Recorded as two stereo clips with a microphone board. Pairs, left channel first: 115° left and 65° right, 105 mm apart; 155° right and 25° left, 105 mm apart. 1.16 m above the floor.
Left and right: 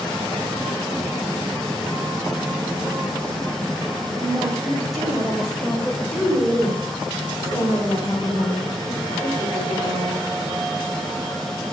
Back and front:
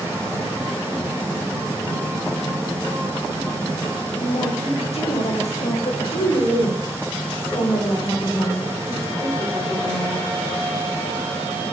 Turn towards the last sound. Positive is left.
turn(degrees=130)